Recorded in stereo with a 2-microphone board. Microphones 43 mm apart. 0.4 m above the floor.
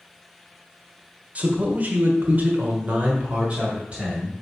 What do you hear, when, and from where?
1.4 s a man speaking: 35° right (ahead or behind), 1.2 m; by 4.3 s 25° right (ahead or behind), 1.8 m